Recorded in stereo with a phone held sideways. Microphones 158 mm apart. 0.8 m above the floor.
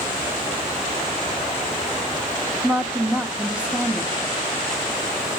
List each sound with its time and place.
2.6 s a woman speaking: 5° right (ahead or behind), 0.7 m